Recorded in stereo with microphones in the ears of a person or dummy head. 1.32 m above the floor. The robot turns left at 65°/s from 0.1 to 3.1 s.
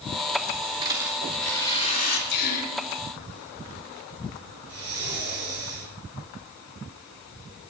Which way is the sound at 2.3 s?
60° left (ahead or behind).